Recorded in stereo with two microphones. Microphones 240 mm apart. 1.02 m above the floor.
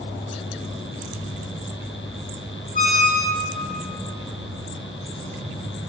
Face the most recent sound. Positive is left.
turn(degrees=35)  # may be behind; listen again after turning